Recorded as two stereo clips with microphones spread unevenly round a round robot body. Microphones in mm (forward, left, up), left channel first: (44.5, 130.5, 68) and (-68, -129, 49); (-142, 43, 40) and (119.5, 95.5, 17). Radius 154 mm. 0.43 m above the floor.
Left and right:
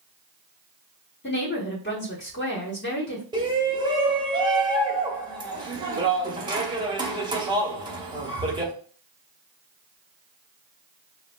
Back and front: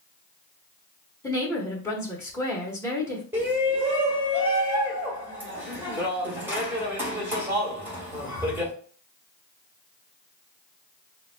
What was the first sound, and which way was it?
A woman speaking, 110° left.